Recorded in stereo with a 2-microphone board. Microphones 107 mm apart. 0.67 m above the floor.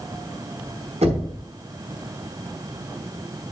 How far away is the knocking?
About 5 m.